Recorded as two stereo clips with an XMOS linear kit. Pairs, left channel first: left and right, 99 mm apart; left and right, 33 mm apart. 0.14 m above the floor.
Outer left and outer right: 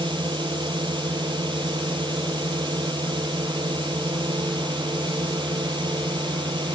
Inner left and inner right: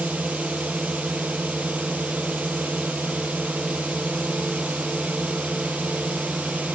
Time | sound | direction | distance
0.0 | a drone | 50° right (ahead or behind) | ?